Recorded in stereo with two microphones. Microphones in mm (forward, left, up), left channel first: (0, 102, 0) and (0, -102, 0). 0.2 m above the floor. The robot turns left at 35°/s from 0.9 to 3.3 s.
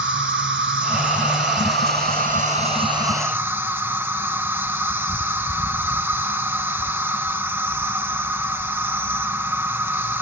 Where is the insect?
85° right, 0.9 m; by 10.2 s 170° right, 0.9 m.